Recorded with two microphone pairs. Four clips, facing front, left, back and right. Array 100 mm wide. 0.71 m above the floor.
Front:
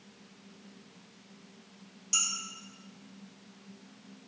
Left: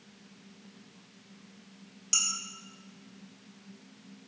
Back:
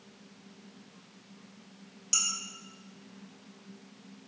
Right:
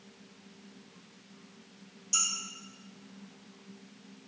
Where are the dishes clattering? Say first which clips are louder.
Right 3 dB, front 1 dB; 110° left, 1.5 m.